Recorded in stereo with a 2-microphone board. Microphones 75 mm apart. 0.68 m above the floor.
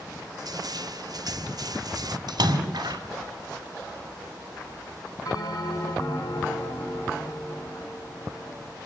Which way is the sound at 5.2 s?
60° left (ahead or behind).